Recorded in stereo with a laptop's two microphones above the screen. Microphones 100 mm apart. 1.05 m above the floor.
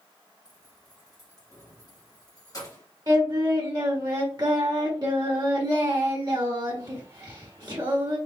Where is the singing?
45° right (ahead or behind), 1.3 m.